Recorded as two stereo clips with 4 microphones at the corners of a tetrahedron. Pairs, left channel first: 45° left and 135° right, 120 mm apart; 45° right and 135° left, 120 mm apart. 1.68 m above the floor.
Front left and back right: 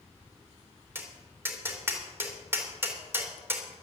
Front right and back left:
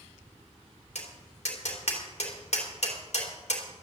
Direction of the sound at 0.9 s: 65° right.